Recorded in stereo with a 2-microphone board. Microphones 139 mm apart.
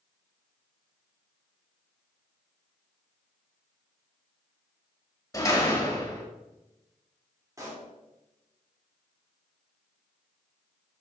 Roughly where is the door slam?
Left.